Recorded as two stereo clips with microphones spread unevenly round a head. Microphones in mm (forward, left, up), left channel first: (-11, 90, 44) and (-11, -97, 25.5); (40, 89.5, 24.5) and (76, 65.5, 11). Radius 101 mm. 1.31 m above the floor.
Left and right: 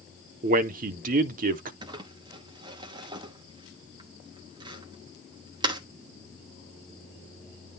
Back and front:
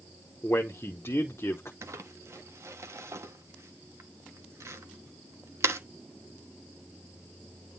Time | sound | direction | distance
0.4 | a man speaking | 140° right | 0.6 m
1.8 | crumpling | 20° right | 0.9 m